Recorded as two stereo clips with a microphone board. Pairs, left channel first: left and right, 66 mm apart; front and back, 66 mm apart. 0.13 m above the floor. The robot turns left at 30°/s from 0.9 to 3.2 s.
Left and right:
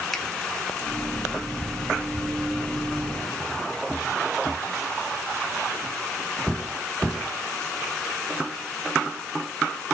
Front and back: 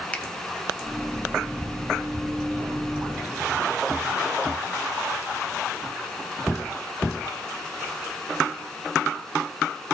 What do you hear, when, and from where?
0.1 s a finger snap: 20° left, 0.9 m